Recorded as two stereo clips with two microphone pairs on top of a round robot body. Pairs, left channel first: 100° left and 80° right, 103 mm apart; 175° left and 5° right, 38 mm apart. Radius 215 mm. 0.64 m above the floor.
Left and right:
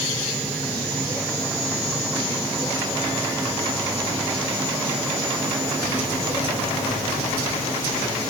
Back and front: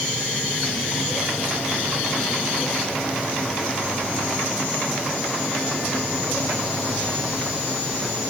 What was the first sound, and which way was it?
Only background noise.